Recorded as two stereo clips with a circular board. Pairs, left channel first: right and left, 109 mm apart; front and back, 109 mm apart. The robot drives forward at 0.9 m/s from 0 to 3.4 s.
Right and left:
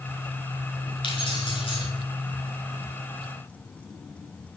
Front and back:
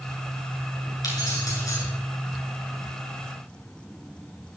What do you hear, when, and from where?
1.0 s keys jangling: 55° right, 7 m; by 1.9 s 60° right, 6.5 m